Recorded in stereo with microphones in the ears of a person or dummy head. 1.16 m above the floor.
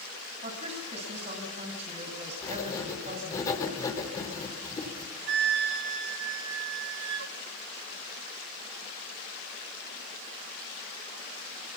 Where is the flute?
60° right (ahead or behind), 1.5 m.